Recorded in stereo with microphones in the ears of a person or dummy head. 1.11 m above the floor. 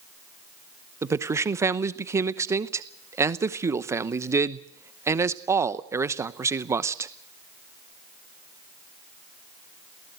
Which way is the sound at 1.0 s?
15° right (ahead or behind).